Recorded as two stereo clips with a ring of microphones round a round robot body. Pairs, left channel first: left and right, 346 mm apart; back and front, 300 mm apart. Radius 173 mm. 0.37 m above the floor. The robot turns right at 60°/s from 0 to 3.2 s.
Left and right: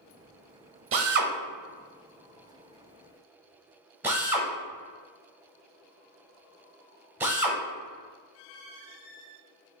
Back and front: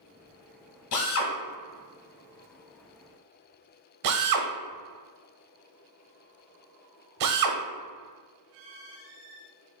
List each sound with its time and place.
0.9 s a drill: 145° right, 0.7 m; by 7.6 s 5° right, 0.7 m